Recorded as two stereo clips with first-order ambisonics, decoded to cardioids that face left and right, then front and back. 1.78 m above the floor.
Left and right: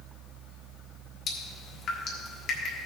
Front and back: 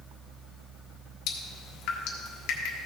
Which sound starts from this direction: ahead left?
Dripping, at 1.3 s.